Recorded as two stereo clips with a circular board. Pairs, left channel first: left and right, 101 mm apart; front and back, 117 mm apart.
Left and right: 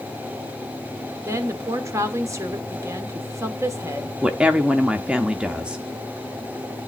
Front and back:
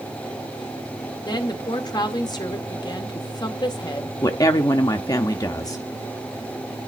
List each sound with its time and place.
1.2 s a woman speaking: 40° right, 1.5 m
4.2 s a woman speaking: 20° right, 0.8 m